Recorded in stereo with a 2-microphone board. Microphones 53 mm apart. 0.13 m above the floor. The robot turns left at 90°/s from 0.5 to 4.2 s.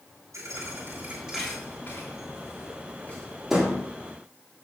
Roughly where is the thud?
Right.